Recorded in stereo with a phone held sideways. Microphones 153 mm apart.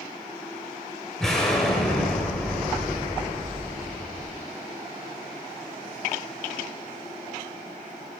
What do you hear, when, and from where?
1.2 s an explosion: 5° left (ahead or behind), 6 m